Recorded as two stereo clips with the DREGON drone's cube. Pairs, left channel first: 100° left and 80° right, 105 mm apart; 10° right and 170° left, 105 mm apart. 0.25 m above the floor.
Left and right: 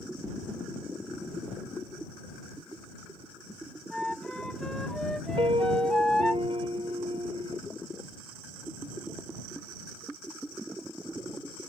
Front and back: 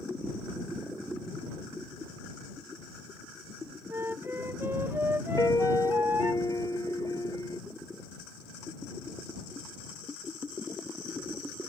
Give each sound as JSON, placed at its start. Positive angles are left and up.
{"t": 3.9, "sound": "a flute", "azimuth_deg": 180}
{"t": 5.4, "sound": "a piano", "azimuth_deg": -60}